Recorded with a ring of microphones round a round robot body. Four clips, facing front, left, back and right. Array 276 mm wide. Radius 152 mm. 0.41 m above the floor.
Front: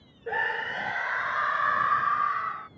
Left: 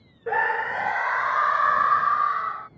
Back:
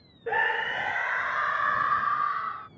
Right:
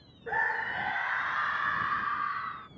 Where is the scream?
110° left; by 2.7 s 85° left.